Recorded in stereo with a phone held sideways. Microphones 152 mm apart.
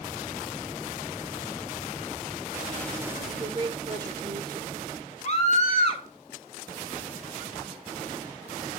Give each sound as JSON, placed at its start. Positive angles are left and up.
{"t": 3.2, "sound": "a woman speaking", "side_deg": -30, "distance_m": 4.0}
{"t": 5.2, "sound": "a scream", "side_deg": 50, "distance_m": 4.0}